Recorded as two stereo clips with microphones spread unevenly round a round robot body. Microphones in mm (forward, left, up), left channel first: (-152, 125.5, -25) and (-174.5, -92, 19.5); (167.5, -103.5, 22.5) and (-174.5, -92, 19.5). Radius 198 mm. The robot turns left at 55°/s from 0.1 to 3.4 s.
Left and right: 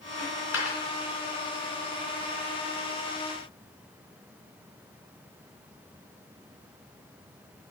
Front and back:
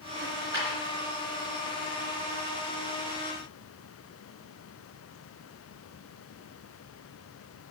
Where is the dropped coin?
115° left, 2.5 m; by 0.8 s 85° left, 2.5 m.